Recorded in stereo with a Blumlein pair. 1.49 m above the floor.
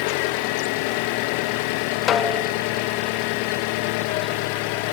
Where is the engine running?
45° left, 0.7 m.